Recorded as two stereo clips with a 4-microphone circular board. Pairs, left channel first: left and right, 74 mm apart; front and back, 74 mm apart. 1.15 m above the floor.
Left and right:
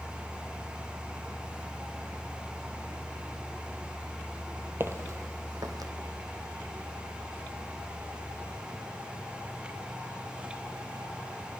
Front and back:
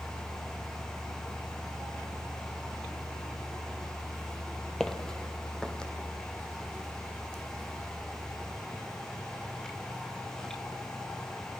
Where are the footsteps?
80° right, 1.3 m.